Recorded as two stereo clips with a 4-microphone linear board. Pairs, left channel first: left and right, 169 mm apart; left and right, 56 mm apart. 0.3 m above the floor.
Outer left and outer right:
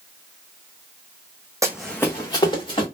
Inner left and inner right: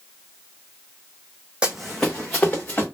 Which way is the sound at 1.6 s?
20° right (ahead or behind).